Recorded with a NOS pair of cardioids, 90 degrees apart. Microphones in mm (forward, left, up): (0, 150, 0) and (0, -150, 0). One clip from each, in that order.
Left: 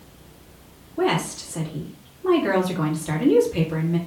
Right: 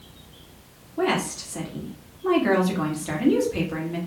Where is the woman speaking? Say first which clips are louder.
Left 1 dB; straight ahead, 1.6 m.